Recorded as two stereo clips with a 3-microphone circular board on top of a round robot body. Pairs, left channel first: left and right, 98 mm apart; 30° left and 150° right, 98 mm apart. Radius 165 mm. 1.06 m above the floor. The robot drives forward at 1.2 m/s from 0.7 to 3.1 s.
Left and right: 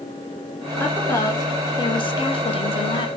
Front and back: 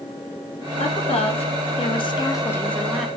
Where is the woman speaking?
25° left, 2.5 m; by 3.1 s 125° left, 1.3 m.